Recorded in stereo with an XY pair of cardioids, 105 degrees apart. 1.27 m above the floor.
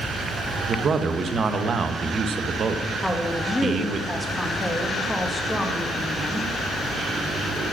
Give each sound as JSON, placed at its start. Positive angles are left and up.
{"t": 0.7, "sound": "a man speaking", "azimuth_deg": -45, "distance_m": 1.0}
{"t": 3.0, "sound": "a woman speaking", "azimuth_deg": 10, "distance_m": 1.6}